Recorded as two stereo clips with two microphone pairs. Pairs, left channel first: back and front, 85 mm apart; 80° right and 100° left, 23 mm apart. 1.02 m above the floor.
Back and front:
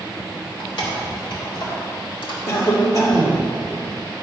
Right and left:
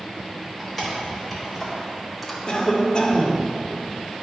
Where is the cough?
140° right, 1.9 m.